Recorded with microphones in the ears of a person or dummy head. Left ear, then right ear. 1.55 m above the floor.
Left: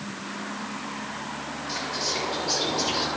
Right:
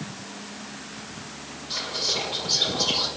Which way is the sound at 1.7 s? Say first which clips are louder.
Right 3 dB; 55° left (ahead or behind).